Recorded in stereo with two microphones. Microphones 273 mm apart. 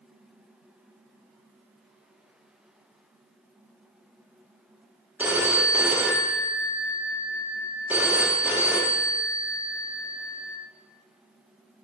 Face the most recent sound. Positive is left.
turn(degrees=-5)  # may be behind; listen again after turning